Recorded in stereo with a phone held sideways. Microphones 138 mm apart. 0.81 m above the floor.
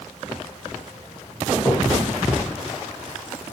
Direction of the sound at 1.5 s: 25° left (ahead or behind).